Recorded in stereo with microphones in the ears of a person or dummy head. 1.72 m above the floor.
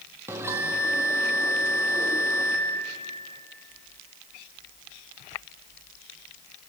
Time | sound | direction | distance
0.3 | a bell | 15° right (ahead or behind) | 2 m